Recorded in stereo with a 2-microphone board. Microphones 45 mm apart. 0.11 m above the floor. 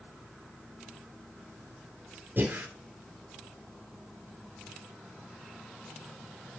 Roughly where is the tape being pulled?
No tape being pulled in this recording.